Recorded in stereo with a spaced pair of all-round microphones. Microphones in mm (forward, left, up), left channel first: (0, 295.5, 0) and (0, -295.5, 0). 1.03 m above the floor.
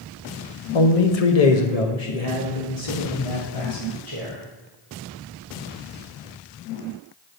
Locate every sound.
0.7 s a man speaking: 55° left (ahead or behind), 0.8 m